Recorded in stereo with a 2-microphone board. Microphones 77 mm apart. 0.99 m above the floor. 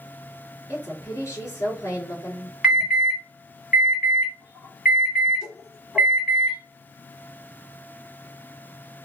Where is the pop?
I don't hear a pop.